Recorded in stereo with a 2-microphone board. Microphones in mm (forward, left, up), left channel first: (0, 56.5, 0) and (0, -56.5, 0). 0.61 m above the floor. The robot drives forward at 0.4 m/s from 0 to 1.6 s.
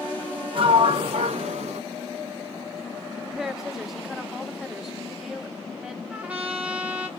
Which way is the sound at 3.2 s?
5° right (ahead or behind).